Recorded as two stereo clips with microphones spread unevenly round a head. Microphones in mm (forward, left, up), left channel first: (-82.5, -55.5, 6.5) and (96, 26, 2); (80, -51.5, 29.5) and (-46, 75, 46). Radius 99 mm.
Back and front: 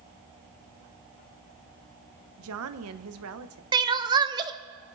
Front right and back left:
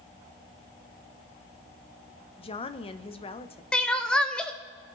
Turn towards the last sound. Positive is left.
turn(degrees=50)